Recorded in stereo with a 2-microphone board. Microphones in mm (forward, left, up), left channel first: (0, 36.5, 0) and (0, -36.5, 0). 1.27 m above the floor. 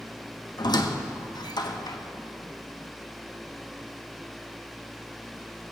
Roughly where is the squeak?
Left.